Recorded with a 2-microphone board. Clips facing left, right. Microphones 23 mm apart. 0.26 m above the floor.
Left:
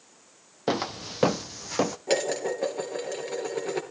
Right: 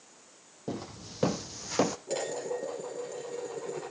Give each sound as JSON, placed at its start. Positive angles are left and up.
{"t": 0.7, "sound": "footsteps", "side_deg": 65, "distance_m": 0.6}
{"t": 2.1, "sound": "dishes clattering", "side_deg": 55, "distance_m": 3.5}